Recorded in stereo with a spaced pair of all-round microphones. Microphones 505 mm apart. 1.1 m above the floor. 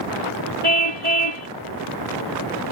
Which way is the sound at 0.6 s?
55° right (ahead or behind).